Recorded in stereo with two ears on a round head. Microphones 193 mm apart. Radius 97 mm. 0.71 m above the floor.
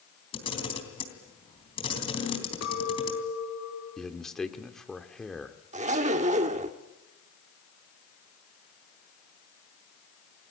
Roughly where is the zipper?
Right.